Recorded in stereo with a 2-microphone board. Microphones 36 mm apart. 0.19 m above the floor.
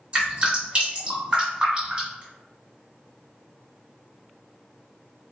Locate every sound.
0.1 s dripping: 25° right (ahead or behind), 1.8 m